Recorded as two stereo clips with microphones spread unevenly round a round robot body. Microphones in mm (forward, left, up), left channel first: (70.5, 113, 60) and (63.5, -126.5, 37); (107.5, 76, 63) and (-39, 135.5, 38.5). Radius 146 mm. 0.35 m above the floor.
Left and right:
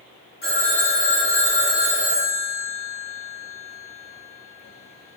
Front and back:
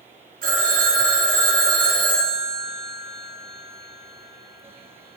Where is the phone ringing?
145° left, 5.5 m.